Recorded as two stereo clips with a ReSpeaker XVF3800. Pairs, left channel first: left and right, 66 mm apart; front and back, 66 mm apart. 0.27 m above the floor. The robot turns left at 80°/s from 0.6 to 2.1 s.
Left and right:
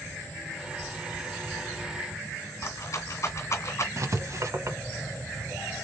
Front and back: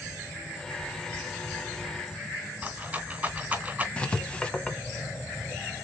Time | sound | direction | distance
2.6 | a rattle | 120° left | 1.8 m
4.0 | writing | 70° right | 0.9 m